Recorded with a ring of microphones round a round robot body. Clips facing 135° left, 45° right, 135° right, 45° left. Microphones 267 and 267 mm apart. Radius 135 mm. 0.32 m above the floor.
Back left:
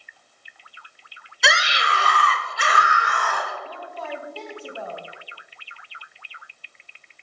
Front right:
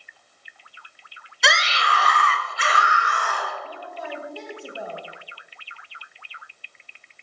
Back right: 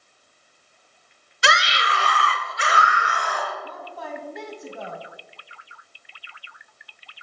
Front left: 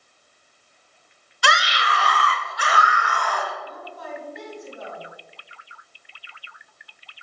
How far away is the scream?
About 0.9 m.